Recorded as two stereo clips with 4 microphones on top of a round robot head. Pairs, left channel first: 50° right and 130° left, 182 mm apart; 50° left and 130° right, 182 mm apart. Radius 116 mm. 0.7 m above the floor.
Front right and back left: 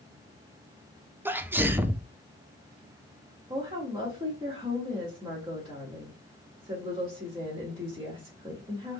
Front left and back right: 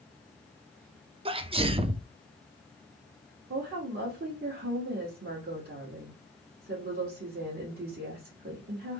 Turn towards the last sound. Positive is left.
turn(degrees=-160)